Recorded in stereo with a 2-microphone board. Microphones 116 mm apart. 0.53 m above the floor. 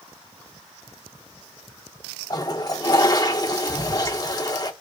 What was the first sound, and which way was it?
A toilet flushing, 35° left (ahead or behind).